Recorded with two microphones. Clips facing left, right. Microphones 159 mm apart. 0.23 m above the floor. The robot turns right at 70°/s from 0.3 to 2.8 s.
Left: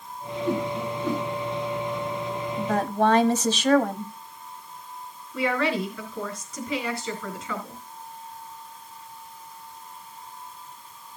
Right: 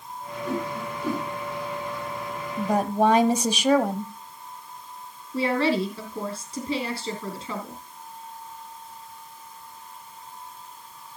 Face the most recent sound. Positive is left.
turn(degrees=-35)  # may be behind; listen again after turning